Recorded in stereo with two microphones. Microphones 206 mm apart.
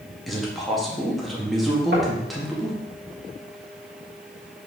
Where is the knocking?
60° right (ahead or behind), 3 m.